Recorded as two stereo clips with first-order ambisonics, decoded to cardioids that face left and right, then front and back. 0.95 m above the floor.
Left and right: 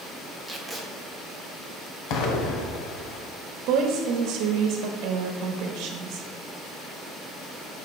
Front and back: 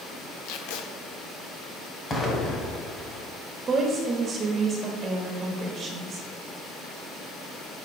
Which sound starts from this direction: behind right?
A woman speaking, at 3.7 s.